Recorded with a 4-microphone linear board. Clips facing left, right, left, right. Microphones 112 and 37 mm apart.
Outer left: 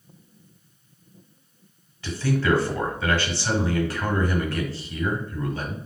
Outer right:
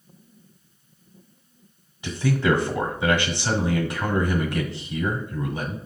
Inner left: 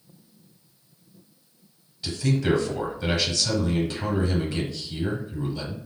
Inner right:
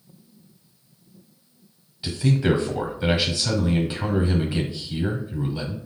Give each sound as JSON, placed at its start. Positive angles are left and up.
{"t": 2.0, "sound": "a man speaking", "side_deg": -20, "distance_m": 1.1}